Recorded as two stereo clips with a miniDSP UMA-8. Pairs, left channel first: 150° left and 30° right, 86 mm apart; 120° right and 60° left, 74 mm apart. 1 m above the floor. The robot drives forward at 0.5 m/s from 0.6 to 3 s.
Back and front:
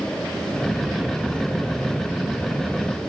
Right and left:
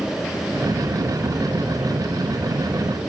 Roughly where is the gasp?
No gasp in this recording.